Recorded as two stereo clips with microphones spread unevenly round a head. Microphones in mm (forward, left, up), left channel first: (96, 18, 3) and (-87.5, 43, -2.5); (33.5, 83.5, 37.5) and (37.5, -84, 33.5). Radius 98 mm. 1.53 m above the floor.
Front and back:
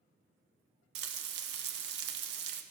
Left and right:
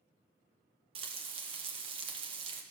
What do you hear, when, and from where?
0.9 s frying: 150° right, 0.9 m